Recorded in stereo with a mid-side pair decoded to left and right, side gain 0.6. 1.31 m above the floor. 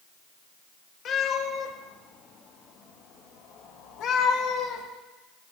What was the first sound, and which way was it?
A cat meowing, 55° left.